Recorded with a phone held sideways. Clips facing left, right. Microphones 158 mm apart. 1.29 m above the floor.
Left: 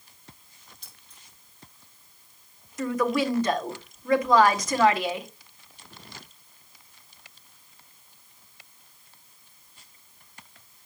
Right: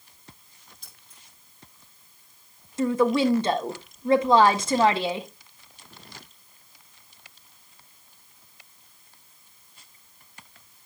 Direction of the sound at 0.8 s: 50° right (ahead or behind).